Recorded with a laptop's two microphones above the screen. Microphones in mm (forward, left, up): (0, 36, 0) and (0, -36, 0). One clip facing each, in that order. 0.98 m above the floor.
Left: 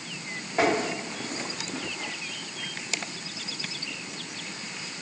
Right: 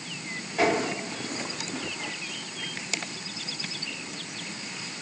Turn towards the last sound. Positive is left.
turn(degrees=40)  # may be behind; listen again after turning